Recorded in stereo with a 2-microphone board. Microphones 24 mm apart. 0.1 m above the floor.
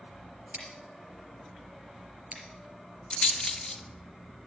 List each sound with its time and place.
0.5 s scissors: 55° right (ahead or behind), 4 m
3.1 s a rattle: 40° left (ahead or behind), 1.4 m